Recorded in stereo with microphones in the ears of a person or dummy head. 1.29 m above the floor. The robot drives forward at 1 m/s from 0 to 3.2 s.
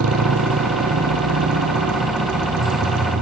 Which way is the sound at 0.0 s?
75° right (ahead or behind).